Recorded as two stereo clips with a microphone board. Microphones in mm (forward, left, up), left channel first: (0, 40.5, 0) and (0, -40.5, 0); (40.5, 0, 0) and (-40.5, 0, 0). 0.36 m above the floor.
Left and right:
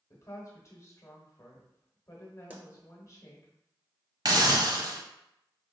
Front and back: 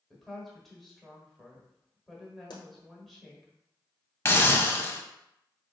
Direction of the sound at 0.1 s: 85° left.